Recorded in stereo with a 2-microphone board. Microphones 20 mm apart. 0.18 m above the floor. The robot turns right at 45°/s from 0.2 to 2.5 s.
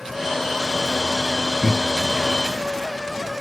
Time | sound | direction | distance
1.6 | laughter | 10° right (ahead or behind) | 1.5 m